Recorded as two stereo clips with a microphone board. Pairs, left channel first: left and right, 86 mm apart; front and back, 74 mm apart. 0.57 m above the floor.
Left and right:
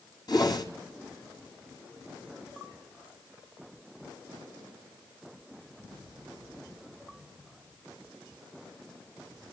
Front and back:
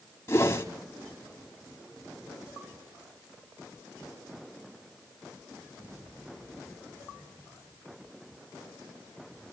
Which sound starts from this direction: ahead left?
A whoosh, at 0.3 s.